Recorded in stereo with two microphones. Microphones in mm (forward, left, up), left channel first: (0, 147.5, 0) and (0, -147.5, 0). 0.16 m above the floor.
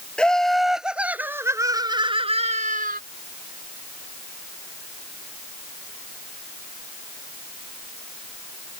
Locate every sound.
0.2 s laughter: 5° left (ahead or behind); by 3.0 s 30° right (ahead or behind)